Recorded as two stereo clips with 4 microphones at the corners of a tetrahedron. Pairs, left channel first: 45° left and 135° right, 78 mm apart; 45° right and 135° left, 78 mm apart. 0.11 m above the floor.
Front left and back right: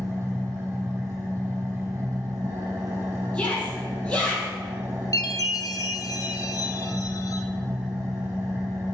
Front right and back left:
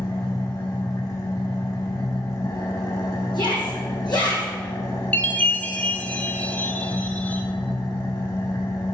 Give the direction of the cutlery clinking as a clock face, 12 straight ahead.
No cutlery clinking in this recording.